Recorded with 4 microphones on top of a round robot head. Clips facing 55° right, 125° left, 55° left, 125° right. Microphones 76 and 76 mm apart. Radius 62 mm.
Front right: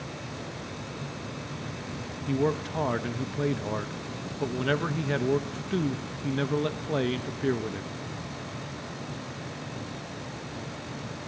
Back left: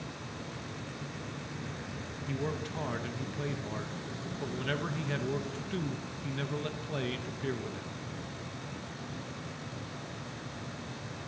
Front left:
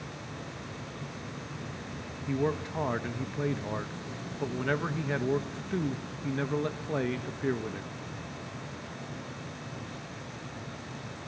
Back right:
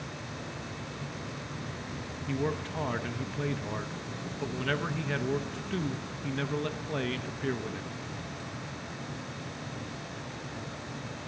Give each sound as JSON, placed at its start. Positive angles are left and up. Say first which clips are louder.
{"t": 2.3, "sound": "a man speaking", "louder": "front right 9 dB, front left 2 dB", "azimuth_deg": -15, "distance_m": 1.3}